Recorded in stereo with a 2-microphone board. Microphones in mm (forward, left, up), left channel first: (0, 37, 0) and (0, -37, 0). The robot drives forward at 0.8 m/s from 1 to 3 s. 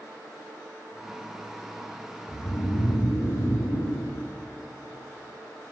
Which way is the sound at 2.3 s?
50° left (ahead or behind).